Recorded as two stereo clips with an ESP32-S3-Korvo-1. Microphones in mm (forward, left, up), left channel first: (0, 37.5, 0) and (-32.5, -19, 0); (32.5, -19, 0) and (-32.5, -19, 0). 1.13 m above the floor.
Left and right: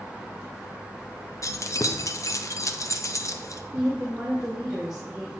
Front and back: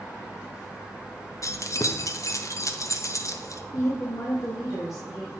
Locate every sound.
1.4 s keys jangling: 30° left, 0.6 m
3.7 s a woman speaking: 40° right, 1.7 m